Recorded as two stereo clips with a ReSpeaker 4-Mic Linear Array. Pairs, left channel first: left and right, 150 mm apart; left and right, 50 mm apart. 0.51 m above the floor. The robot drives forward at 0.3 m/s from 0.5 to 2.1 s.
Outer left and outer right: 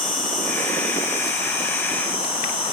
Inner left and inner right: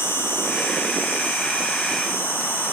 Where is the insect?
55° left (ahead or behind), 1.5 m; by 2.7 s 40° left (ahead or behind), 1.8 m.